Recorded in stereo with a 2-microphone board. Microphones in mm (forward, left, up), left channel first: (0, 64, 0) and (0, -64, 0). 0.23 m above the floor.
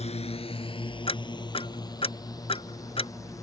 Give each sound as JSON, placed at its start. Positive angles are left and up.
{"t": 0.0, "sound": "a drone", "side_deg": 55}
{"t": 1.1, "sound": "ticking", "side_deg": 45}